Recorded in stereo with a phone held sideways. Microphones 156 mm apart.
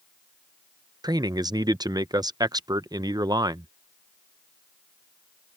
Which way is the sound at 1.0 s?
25° right (ahead or behind).